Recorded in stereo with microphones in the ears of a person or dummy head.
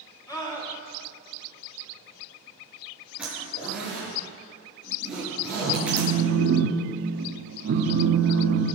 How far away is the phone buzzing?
About 1.5 m.